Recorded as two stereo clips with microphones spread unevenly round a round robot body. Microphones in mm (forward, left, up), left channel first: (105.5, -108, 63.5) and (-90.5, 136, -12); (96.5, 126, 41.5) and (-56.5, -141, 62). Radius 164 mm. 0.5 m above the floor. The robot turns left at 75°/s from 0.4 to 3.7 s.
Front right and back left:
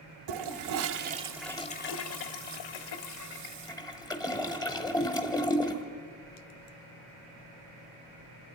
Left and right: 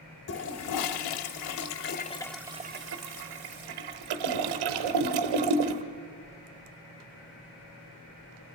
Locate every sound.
0.3 s a toilet flushing: 115° left, 1.1 m; by 5.8 s 130° right, 1.1 m